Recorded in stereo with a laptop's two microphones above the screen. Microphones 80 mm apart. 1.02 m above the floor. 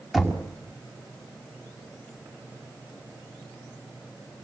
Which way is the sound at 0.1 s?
5° right (ahead or behind).